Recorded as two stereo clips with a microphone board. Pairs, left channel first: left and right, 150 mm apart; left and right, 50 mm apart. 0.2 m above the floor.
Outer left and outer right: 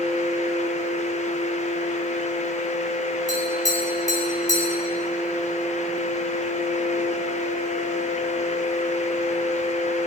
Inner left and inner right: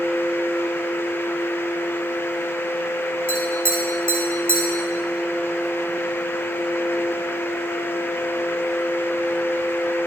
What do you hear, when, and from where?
3.3 s tapping: 50° right (ahead or behind), 4 m